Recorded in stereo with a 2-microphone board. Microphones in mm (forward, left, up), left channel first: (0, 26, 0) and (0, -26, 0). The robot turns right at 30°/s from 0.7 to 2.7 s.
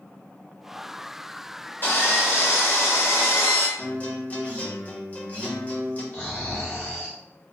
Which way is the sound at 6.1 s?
30° left (ahead or behind).